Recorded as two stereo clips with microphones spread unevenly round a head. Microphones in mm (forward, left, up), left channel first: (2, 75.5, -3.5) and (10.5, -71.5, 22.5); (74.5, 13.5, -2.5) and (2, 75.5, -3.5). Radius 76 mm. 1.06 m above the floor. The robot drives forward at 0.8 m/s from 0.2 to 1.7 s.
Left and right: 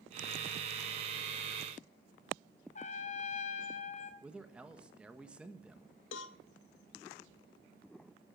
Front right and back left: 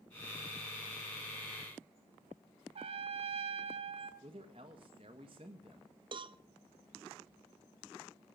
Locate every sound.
2.8 s a trumpet: 140° left, 1.2 m
4.2 s a man speaking: 175° right, 1.4 m
6.1 s a cowbell: 105° left, 0.7 m